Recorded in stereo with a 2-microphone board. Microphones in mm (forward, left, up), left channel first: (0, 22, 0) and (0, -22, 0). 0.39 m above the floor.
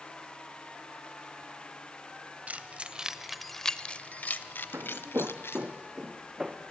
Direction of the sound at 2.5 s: 35° right (ahead or behind).